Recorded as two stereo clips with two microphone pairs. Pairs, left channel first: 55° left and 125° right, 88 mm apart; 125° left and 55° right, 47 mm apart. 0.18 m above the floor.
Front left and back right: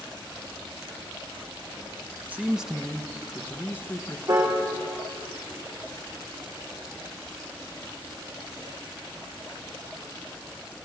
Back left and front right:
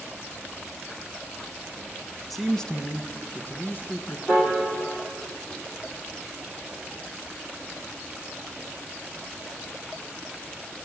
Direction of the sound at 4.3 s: 165° right.